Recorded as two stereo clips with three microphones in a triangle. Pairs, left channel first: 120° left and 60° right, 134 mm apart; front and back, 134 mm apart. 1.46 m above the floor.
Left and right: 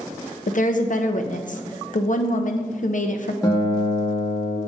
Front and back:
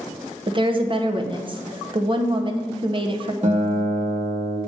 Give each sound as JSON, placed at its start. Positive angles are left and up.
{"t": 0.5, "sound": "a woman speaking", "azimuth_deg": 130, "distance_m": 0.7}
{"t": 3.4, "sound": "a guitar", "azimuth_deg": 175, "distance_m": 1.2}